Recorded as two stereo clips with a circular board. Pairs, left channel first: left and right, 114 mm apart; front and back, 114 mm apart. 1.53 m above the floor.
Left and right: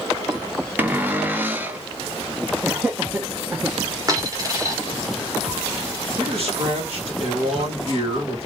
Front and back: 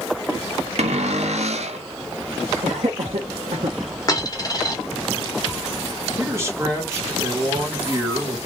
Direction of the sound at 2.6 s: 165° right.